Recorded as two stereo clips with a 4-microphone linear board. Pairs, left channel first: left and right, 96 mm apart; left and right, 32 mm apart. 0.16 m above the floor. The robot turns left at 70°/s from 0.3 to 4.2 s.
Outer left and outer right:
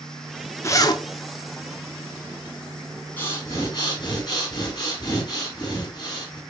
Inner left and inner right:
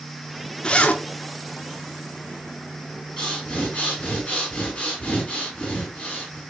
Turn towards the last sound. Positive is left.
turn(degrees=75)